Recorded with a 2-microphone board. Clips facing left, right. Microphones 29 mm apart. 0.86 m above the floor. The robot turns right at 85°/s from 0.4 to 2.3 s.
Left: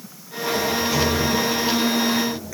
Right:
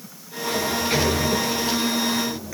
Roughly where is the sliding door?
Behind.